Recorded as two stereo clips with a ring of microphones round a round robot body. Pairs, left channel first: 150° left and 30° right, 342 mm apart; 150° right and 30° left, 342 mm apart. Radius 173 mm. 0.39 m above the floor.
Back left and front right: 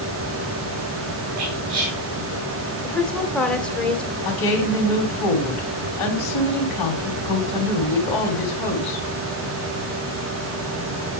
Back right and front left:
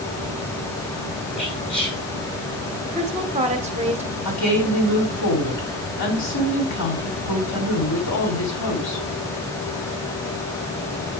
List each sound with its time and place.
1.4 s whispering: 75° right, 5.5 m
2.8 s a woman speaking: 65° left, 1.3 m
4.2 s a woman speaking: 170° left, 4 m